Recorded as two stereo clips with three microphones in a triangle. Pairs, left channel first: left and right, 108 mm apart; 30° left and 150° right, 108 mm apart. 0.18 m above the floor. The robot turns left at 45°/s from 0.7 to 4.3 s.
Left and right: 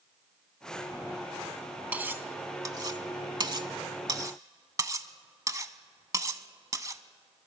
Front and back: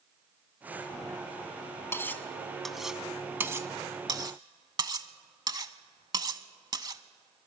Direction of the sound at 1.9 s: 25° right.